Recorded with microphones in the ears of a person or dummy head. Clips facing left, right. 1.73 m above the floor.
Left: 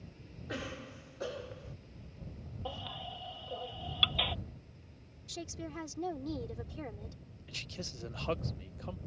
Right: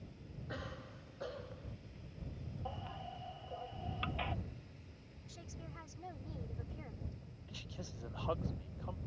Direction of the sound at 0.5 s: 45° left (ahead or behind).